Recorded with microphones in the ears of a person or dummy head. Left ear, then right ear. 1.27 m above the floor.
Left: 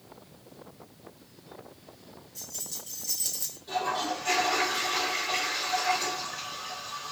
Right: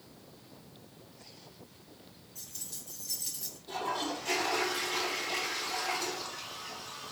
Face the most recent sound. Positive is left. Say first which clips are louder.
# left 5 dB
turn(degrees=30)  # may be behind; listen again after turning